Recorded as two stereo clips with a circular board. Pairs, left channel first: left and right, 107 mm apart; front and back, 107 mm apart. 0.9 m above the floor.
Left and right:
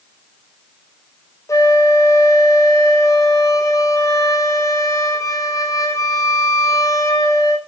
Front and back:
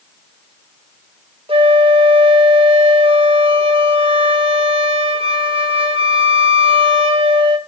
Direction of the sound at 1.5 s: 150° left.